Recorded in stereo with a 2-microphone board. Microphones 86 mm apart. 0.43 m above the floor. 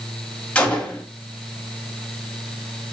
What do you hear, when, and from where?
0.6 s a gunshot: 15° left (ahead or behind), 1.3 m